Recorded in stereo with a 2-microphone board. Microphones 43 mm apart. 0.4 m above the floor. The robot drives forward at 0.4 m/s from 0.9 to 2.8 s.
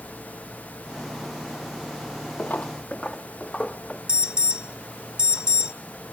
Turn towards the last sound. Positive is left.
turn(degrees=-20)  # may be behind; listen again after turning